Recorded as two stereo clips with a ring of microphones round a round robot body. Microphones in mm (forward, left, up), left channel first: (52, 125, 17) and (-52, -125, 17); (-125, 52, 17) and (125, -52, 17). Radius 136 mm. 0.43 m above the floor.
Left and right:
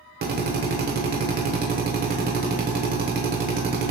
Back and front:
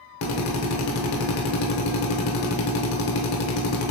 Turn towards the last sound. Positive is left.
turn(degrees=-165)